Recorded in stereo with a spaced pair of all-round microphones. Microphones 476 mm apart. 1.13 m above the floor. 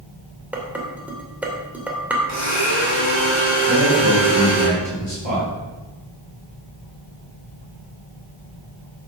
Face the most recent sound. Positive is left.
turn(degrees=65)  # may be behind; listen again after turning